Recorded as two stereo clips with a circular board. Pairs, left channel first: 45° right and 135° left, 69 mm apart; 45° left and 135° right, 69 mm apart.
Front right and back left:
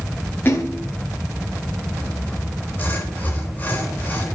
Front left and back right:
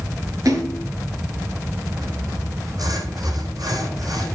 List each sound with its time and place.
0.5 s a splash: 100° right, 8 m
2.0 s sawing: 110° right, 10 m